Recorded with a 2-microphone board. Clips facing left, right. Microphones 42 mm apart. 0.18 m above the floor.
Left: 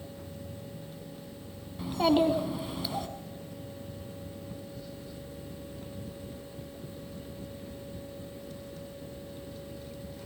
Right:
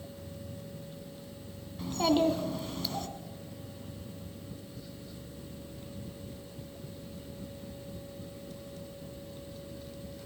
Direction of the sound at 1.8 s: 15° left (ahead or behind).